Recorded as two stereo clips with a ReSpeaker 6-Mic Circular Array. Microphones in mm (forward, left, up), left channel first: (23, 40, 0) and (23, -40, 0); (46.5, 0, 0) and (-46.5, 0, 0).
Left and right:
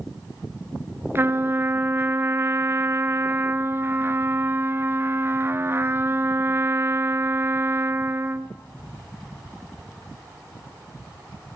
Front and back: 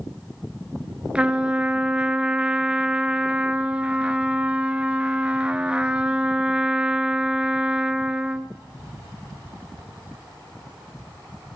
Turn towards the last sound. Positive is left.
turn(degrees=-110)